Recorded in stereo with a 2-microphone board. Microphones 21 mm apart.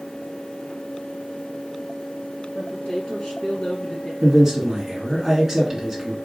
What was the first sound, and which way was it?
A woman speaking, 70° left (ahead or behind).